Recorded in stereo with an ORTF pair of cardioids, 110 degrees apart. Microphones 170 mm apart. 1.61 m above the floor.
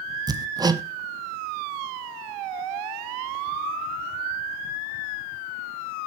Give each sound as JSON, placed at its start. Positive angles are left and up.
{"t": 0.3, "sound": "hammering", "azimuth_deg": -25, "distance_m": 1.3}